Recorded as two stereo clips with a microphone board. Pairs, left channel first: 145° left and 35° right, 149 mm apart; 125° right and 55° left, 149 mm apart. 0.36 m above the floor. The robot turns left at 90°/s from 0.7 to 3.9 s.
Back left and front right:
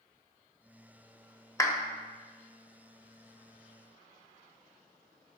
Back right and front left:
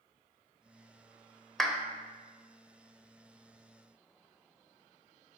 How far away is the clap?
About 0.7 m.